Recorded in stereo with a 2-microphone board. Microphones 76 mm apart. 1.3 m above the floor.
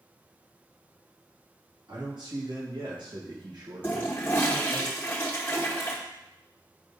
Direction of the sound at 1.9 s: 80° right.